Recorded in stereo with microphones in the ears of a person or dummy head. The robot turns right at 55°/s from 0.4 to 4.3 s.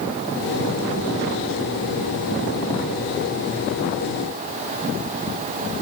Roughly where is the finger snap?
No finger snap in this recording.